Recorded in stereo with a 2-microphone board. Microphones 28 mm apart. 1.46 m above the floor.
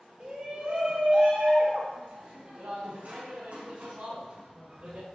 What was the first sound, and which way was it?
A shout, 35° right (ahead or behind).